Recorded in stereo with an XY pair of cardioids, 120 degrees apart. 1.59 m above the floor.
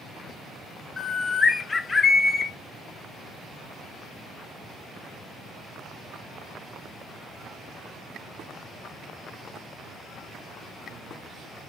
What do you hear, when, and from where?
1.0 s a bird: 25° left, 0.6 m